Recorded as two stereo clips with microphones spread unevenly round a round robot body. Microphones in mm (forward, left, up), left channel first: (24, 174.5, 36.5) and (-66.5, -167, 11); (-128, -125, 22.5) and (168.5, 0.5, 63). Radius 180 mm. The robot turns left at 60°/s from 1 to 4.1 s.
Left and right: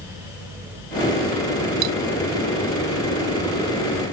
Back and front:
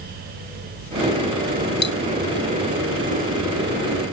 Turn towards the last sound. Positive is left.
turn(degrees=130)